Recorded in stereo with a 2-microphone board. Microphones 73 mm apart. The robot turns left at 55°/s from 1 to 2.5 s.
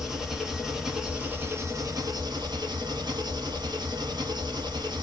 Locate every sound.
0.0 s an engine running: 5° right, 0.8 m; by 5.0 s 90° right, 0.8 m